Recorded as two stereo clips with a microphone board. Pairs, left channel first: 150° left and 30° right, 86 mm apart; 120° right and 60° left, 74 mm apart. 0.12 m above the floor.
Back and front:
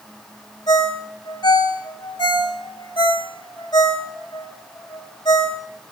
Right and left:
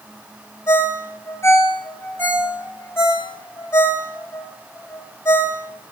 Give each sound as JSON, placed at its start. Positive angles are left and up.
{"t": 0.7, "sound": "a ringtone", "azimuth_deg": 180, "distance_m": 3.0}